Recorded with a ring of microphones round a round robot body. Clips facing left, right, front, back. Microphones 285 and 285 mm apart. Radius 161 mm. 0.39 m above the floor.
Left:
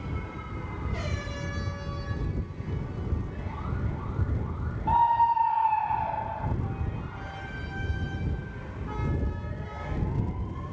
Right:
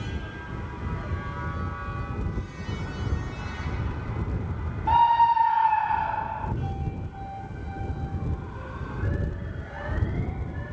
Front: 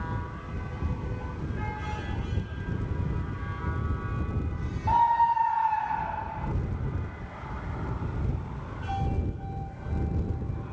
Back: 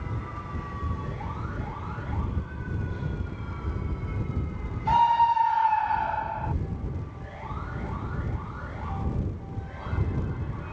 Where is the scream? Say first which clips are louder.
Right 3 dB, back 2 dB; 135° right; by 6.5 s 160° right.